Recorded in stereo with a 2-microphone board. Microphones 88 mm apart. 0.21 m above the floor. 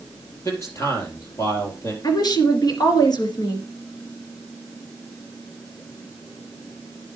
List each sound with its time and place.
0.5 s a man speaking: 40° left (ahead or behind), 4 m
2.0 s a woman speaking: 55° left (ahead or behind), 2.5 m